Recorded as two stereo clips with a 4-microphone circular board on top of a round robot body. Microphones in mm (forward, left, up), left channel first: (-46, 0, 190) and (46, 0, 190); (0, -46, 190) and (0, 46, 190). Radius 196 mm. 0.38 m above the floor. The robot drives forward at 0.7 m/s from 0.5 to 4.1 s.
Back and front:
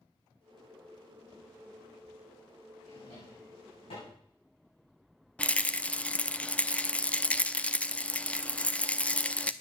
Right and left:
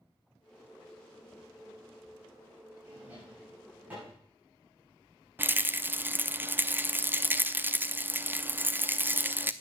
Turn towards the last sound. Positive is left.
turn(degrees=125)